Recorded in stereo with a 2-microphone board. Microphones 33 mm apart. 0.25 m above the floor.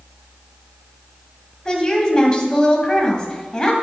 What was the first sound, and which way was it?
A woman speaking, 25° left (ahead or behind).